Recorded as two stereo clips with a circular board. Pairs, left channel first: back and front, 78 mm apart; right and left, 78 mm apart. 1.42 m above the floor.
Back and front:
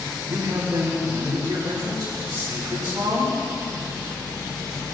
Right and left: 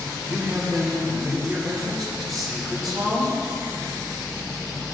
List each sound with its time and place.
0.3 s a man speaking: straight ahead, 5 m